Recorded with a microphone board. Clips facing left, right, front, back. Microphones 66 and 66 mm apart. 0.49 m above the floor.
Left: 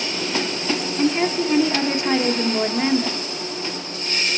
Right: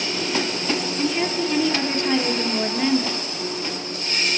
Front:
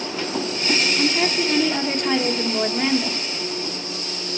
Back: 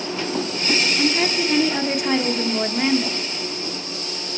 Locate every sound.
1.0 s a woman speaking: 110° left, 0.8 m